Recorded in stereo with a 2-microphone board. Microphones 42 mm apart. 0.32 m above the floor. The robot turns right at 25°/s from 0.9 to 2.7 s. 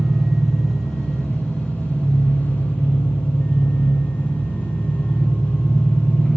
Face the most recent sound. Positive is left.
turn(degrees=45)